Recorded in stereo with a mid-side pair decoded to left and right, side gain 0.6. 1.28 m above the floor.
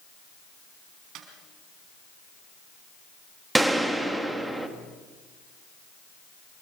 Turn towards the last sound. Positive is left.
turn(degrees=-10)